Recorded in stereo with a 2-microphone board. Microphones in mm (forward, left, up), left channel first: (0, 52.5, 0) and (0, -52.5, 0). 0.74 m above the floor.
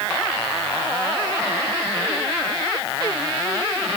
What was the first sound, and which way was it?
Only background noise.